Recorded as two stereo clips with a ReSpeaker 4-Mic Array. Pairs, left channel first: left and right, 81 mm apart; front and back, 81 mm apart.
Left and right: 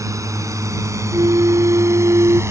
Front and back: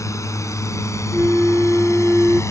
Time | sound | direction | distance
0.0 | a drone | 45° right | ?
1.1 | a flute | 110° right | ?